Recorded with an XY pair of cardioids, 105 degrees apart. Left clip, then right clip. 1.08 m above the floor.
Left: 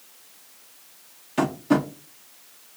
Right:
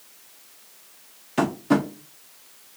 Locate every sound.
1.4 s tapping: 10° right, 0.7 m